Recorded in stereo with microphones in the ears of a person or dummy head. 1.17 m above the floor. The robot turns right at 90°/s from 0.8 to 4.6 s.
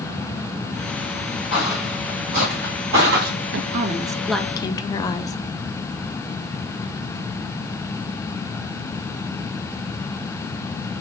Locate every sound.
1.5 s footsteps: 5° left (ahead or behind), 1.6 m; by 3.3 s 45° right (ahead or behind), 2 m
3.5 s a woman speaking: 70° right, 0.6 m; by 5.3 s 25° left, 0.6 m